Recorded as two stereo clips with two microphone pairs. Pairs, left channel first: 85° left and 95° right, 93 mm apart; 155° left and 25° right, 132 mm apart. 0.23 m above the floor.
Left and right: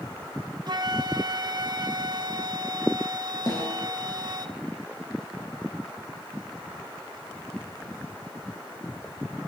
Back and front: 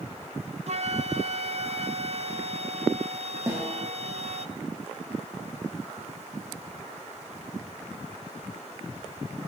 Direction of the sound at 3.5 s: 45° left.